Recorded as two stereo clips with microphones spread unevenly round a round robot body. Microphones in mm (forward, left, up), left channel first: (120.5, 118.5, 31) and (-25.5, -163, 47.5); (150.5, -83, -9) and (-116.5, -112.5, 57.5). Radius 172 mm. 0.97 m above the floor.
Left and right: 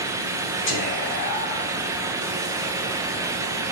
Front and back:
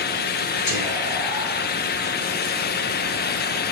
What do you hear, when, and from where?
0.7 s whispering: 10° left, 2 m